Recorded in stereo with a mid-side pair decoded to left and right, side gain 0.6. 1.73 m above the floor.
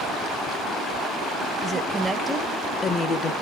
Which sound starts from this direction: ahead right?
A woman speaking, at 1.6 s.